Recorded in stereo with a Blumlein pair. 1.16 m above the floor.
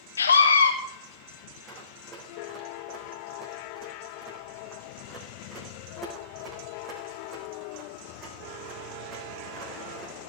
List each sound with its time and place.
0.2 s a scream: 70° left, 0.9 m
1.7 s running footsteps: 25° right, 4.5 m